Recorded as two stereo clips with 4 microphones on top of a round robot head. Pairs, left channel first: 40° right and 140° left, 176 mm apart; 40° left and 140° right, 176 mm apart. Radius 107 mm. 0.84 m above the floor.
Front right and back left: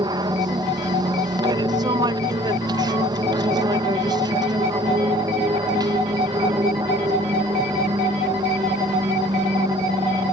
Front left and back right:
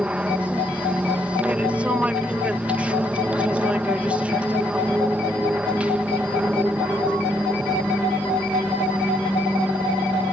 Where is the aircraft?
145° left.